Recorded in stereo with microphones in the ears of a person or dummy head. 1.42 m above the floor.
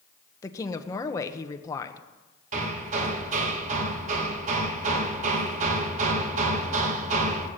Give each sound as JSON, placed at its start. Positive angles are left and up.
{"t": 0.4, "sound": "a woman speaking", "side_deg": 15, "distance_m": 1.3}
{"t": 2.5, "sound": "hammering", "side_deg": -50, "distance_m": 1.6}